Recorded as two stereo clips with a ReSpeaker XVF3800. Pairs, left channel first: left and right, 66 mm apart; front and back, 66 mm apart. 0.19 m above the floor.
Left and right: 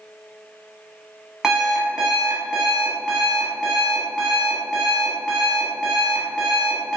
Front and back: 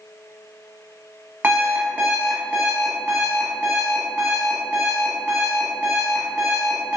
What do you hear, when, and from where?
1.4 s an alarm clock: 160° right, 0.8 m